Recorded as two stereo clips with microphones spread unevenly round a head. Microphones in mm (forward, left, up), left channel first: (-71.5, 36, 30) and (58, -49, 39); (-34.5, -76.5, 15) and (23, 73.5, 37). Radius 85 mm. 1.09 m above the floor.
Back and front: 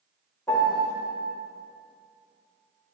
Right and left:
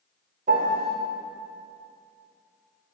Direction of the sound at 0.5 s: 70° left.